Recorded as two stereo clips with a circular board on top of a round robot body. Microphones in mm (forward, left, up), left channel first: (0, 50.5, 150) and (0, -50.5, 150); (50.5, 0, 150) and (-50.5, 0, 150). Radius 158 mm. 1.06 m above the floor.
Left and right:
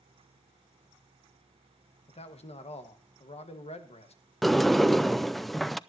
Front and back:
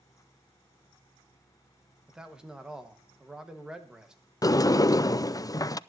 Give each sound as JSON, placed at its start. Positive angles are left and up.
{"t": 2.1, "sound": "a man speaking", "azimuth_deg": 100, "distance_m": 1.6}
{"t": 4.4, "sound": "a sliding door", "azimuth_deg": 0, "distance_m": 0.6}